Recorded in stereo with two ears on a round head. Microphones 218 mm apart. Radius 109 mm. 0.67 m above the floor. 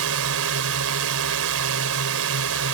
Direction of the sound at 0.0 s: 60° right (ahead or behind).